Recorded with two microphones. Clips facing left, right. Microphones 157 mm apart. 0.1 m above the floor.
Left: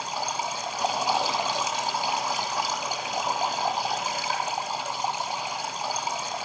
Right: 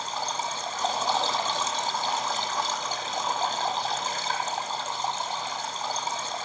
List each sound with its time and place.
0.0 s running water: 15° left (ahead or behind), 1.3 m